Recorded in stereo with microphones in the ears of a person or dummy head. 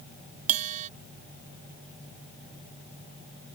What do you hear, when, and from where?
0.5 s a bell: 40° right (ahead or behind)